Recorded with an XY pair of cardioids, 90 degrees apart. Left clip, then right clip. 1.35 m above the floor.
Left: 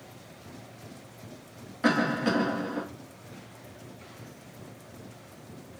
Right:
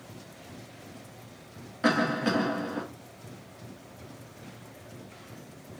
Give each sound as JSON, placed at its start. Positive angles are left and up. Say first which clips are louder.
{"t": 1.8, "sound": "a cough", "louder": "even", "azimuth_deg": -10, "distance_m": 1.4}